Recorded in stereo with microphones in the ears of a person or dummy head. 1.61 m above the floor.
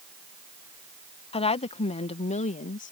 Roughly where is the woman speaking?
Left.